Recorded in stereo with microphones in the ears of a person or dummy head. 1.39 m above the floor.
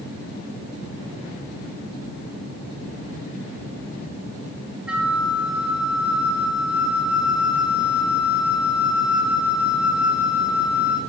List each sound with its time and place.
4.9 s a flute: 10° right (ahead or behind), 1.3 m